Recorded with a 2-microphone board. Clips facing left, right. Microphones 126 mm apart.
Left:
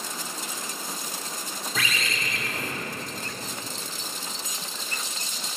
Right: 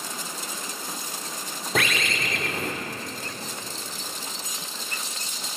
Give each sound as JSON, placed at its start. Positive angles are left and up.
{"t": 1.8, "sound": "a bird", "side_deg": -60, "distance_m": 0.8}